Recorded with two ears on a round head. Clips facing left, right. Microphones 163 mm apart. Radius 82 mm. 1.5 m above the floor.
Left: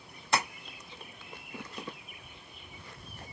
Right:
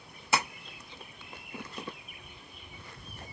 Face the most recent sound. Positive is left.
turn(degrees=-5)  # may be behind; listen again after turning